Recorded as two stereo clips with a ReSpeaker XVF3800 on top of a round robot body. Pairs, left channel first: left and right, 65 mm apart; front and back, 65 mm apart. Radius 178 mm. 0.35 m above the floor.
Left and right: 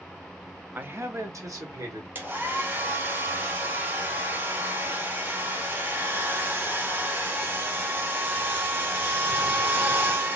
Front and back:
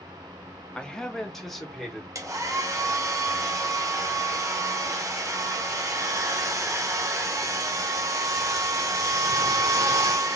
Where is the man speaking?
60° right, 0.9 m; by 2.0 s 90° right, 1.7 m.